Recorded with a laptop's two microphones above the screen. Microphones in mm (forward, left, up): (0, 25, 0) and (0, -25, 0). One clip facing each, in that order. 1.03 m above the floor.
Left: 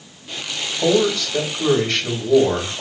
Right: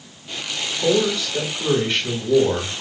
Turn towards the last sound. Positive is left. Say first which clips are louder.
# left 2 dB
turn(degrees=85)